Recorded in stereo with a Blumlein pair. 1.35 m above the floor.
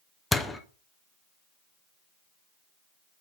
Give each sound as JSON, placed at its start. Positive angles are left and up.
{"t": 0.3, "sound": "a door slam", "azimuth_deg": 10, "distance_m": 0.8}